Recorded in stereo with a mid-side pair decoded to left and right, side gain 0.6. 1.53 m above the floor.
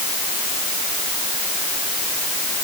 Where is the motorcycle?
I don't hear a motorcycle.